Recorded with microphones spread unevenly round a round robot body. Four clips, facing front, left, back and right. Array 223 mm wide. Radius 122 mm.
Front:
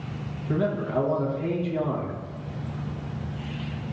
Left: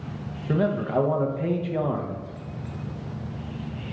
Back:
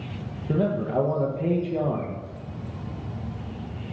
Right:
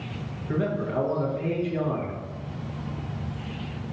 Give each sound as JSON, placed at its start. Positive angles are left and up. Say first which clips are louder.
{"t": 0.5, "sound": "a man speaking", "louder": "left 3 dB, back 1 dB", "azimuth_deg": 135, "distance_m": 1.0}